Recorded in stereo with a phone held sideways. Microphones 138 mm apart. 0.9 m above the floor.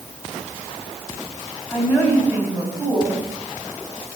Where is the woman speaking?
10° left (ahead or behind), 5.5 m.